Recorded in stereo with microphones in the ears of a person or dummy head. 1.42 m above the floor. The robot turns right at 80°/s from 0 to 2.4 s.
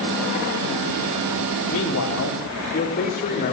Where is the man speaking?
70° left, 4.5 m; by 3.5 s 125° left, 4.5 m.